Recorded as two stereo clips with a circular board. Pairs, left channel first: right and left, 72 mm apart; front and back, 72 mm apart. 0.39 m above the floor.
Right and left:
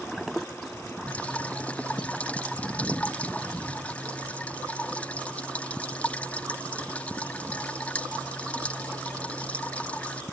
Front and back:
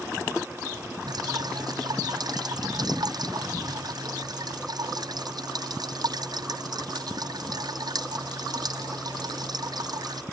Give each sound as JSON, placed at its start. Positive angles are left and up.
{"t": 1.1, "sound": "dripping", "azimuth_deg": -160}